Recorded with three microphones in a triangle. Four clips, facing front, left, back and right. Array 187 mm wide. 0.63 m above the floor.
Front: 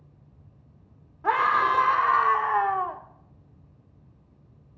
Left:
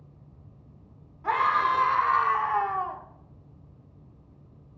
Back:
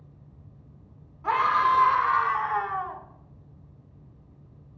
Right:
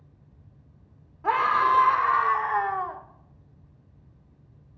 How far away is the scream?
About 2 m.